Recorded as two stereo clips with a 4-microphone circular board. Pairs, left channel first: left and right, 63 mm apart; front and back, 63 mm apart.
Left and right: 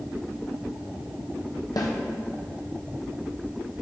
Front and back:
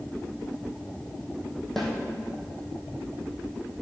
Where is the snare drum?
85° left, 1.9 m.